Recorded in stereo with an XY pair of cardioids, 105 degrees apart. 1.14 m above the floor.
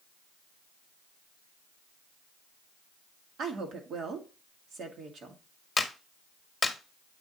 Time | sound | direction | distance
3.4 | a woman speaking | 60° right | 1.7 m
5.8 | a clap | 20° left | 1.1 m